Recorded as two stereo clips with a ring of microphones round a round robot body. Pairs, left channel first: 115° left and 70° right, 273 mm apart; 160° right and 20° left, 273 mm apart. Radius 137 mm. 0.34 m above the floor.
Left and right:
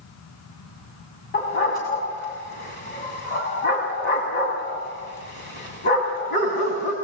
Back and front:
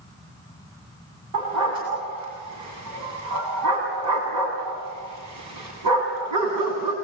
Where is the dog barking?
60° left, 8 m.